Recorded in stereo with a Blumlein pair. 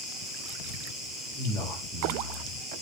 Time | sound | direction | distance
0.0 | an insect | 5° right | 3.5 m
1.3 | a man speaking | 15° left | 5.5 m